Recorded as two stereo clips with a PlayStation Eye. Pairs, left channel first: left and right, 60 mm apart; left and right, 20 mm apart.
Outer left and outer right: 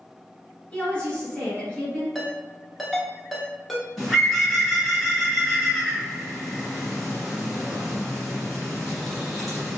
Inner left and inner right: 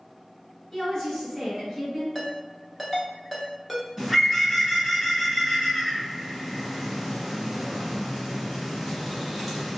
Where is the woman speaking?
20° left (ahead or behind), 1.4 m.